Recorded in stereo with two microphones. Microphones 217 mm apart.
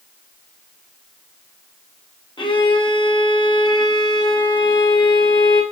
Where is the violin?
20° left (ahead or behind), 0.6 m.